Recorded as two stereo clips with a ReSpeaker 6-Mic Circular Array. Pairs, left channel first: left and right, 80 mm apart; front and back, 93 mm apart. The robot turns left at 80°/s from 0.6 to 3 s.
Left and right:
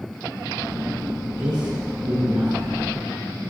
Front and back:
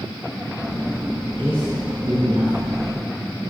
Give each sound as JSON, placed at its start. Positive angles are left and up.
{"t": 1.4, "sound": "a man speaking", "azimuth_deg": -65, "distance_m": 4.0}